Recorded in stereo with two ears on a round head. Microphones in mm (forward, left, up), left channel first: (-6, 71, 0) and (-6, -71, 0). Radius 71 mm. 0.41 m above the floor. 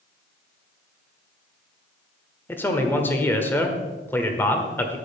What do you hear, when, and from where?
2.5 s a man speaking: 15° left (ahead or behind), 1.3 m